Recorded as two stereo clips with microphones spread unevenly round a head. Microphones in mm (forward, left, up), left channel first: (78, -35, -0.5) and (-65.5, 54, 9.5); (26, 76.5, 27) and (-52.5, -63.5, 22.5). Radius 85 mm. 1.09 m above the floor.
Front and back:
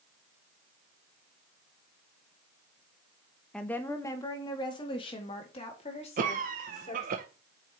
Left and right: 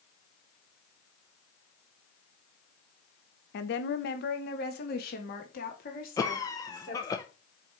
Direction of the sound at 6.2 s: 125° left.